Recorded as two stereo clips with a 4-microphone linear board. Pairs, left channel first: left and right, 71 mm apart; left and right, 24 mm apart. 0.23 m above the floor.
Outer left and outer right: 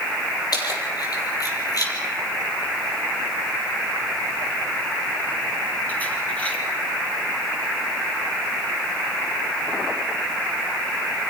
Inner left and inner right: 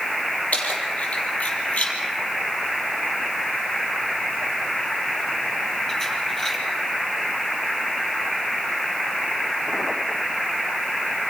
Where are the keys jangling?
65° left (ahead or behind), 5.5 m; by 6.6 s 15° left (ahead or behind), 4.5 m.